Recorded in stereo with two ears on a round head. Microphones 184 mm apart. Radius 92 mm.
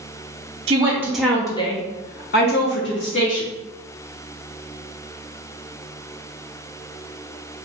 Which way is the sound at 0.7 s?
25° right (ahead or behind).